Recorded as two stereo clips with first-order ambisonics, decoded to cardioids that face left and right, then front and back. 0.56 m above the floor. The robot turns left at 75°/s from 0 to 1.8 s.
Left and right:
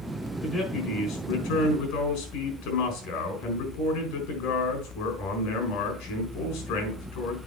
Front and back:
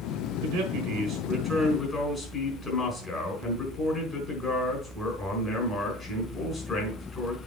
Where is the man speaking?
175° left, 4.5 m; by 7.4 s 70° left, 4.5 m.